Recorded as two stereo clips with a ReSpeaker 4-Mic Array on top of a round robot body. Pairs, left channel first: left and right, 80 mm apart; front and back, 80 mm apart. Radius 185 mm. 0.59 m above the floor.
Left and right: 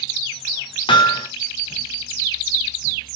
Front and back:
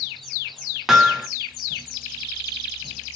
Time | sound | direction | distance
0.9 | hammering | 95° left | 1.2 m